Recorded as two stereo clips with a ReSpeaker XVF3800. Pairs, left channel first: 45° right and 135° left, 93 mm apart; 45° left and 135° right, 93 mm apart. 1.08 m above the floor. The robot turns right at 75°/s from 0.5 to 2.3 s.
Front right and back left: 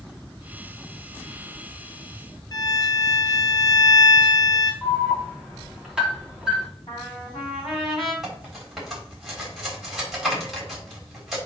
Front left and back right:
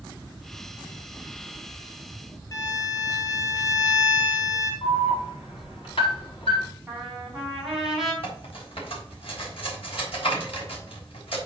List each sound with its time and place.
2.5 s a violin: 5° right, 1.8 m
4.8 s an alarm: 55° left, 4 m
6.9 s a trumpet: 45° right, 4.5 m
8.2 s cutlery clinking: 50° left, 4 m